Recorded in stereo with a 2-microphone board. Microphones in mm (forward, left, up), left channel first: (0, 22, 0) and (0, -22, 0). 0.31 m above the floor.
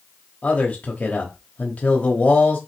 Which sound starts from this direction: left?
A man speaking, at 0.4 s.